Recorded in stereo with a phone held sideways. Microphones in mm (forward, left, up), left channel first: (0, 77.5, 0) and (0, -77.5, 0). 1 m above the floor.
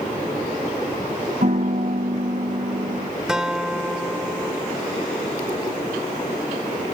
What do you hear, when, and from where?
1.4 s a piano: 55° right (ahead or behind)
3.3 s a guitar: 5° right (ahead or behind)